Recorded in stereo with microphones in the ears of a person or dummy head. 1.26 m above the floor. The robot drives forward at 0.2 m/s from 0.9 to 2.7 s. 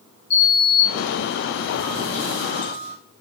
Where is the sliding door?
55° left (ahead or behind), 1.3 m; by 3.0 s 45° left (ahead or behind), 1.5 m.